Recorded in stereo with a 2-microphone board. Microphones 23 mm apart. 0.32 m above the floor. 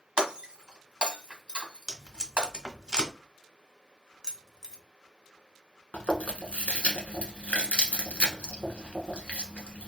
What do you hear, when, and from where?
0.2 s breaking glass: 45° right (ahead or behind), 0.9 m
1.9 s tape being pulled: 35° right (ahead or behind), 1.0 m
4.2 s keys jangling: 30° right (ahead or behind), 0.7 m
5.9 s chewing: 80° left, 0.9 m